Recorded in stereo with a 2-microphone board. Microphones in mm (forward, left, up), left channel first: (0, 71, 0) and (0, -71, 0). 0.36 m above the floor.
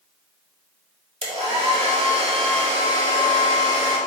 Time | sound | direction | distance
1.2 | a hair dryer | 45° right (ahead or behind) | 1.0 m